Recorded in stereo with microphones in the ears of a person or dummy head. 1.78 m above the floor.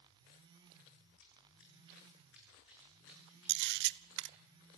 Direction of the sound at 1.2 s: 70° left (ahead or behind).